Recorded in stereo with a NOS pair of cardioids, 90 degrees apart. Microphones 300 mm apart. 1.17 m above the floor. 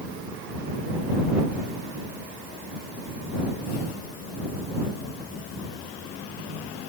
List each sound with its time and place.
Only background noise.